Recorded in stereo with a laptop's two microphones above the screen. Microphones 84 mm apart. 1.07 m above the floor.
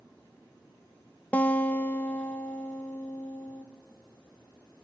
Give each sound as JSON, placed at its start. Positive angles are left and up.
{"t": 1.3, "sound": "a guitar", "side_deg": 15, "distance_m": 0.6}